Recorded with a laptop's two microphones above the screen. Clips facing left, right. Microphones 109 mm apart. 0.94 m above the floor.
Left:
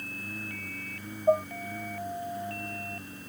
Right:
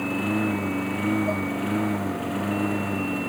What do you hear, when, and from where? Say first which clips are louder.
0.0 s a lawn mower: right 18 dB; 70° right (ahead or behind)
1.3 s dishes clattering: left 3 dB; 25° left (ahead or behind)